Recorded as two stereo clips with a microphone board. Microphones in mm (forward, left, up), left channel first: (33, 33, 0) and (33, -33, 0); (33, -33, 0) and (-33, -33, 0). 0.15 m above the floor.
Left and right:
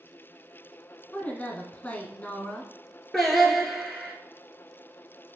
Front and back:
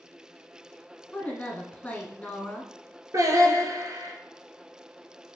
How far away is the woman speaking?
About 1.2 m.